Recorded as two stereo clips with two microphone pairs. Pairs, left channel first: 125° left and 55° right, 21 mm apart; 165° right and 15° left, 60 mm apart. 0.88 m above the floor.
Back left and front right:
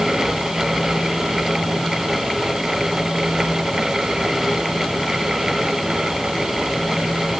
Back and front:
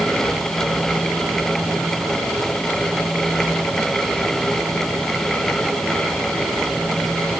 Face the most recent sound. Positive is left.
No sound to turn to.